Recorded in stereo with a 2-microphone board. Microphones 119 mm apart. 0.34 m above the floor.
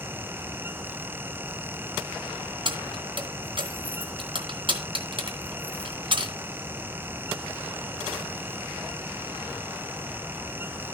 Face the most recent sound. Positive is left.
turn(degrees=-50)  # may be behind; listen again after turning